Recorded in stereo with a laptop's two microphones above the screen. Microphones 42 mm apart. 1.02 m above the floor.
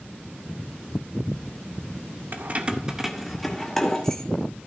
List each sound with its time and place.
2.3 s keys jangling: 50° right (ahead or behind), 0.6 m; by 4.3 s 15° left (ahead or behind), 1.5 m